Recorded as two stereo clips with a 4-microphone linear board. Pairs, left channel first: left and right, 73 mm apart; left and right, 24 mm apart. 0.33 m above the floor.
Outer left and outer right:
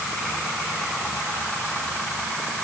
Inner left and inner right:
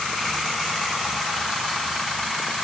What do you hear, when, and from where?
Only background noise.